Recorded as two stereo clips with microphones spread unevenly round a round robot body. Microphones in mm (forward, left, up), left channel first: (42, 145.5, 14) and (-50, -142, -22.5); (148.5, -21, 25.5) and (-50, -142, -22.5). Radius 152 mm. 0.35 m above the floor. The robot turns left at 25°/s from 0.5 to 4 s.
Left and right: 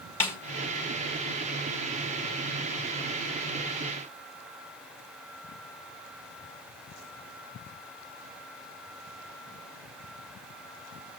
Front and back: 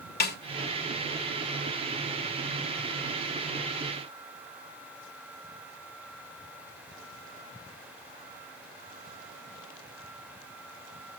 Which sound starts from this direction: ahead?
A snare drum, at 0.2 s.